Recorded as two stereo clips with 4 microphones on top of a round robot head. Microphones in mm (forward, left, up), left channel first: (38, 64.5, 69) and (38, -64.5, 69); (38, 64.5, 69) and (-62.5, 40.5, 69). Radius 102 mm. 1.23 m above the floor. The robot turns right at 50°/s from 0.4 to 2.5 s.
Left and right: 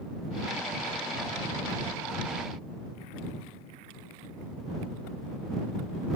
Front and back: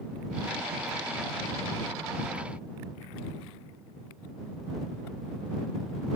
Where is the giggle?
I don't hear a giggle.